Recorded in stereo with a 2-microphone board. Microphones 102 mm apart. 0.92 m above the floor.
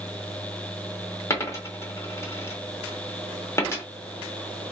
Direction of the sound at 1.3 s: 25° left (ahead or behind).